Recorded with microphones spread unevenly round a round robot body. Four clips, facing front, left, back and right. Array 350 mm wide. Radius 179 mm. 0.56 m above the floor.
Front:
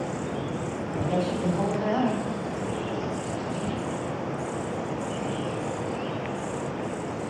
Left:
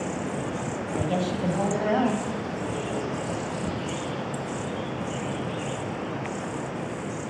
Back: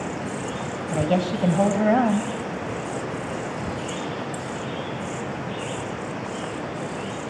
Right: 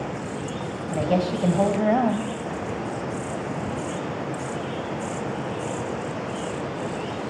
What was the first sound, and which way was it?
A woman speaking, 160° right.